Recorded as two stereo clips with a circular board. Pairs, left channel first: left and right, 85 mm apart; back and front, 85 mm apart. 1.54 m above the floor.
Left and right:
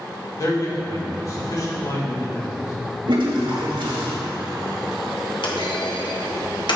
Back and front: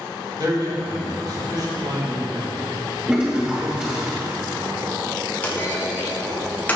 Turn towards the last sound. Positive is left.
turn(degrees=110)